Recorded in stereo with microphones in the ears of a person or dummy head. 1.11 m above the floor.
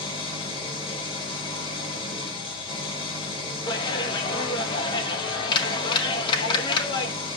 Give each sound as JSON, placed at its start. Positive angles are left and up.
{"t": 0.0, "sound": "an engine running", "side_deg": 30, "distance_m": 3.5}
{"t": 3.7, "sound": "a clap", "side_deg": 30, "distance_m": 1.1}